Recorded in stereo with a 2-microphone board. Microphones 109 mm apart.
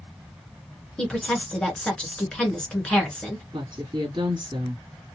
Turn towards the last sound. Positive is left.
turn(degrees=-45)  # may be behind; listen again after turning